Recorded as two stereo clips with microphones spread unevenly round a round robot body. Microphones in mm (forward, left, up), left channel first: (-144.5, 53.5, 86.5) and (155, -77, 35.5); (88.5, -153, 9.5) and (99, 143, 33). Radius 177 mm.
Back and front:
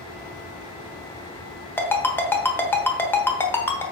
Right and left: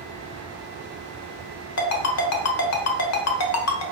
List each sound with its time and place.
1.8 s a ringtone: 115° right, 1.0 m